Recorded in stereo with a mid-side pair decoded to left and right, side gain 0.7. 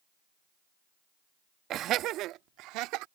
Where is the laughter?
50° right; by 3.0 s 65° right.